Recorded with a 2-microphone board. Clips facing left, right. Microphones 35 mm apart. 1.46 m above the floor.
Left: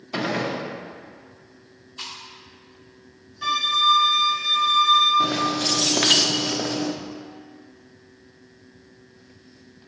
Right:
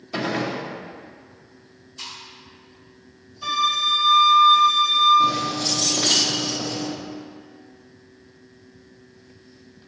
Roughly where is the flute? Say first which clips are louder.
Left 1 dB; left.